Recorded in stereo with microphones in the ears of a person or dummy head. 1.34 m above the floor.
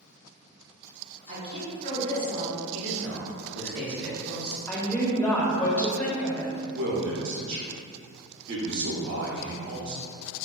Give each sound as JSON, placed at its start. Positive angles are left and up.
{"t": 1.3, "sound": "a woman speaking", "side_deg": -30, "distance_m": 1.2}
{"t": 2.7, "sound": "a man speaking", "side_deg": -75, "distance_m": 1.4}
{"t": 4.7, "sound": "a woman speaking", "side_deg": 5, "distance_m": 0.6}
{"t": 6.7, "sound": "a man speaking", "side_deg": -60, "distance_m": 0.7}